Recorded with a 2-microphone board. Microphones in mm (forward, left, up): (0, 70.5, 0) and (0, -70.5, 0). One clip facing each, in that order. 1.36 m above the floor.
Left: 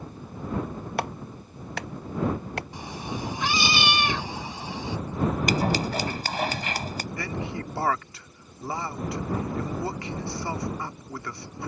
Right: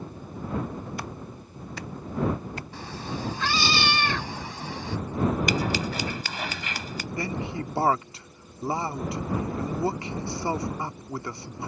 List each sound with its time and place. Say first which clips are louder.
1.0 s a clap: left 5 dB; 70° left (ahead or behind)
2.7 s a cat meowing: even; 15° left (ahead or behind)
5.5 s scissors: left 2 dB; 40° left (ahead or behind)
7.2 s a man speaking: right 4 dB; 25° right (ahead or behind)